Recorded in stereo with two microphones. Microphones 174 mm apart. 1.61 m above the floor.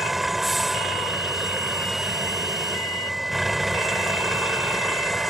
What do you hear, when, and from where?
0.0 s a vehicle: centre (ahead or behind)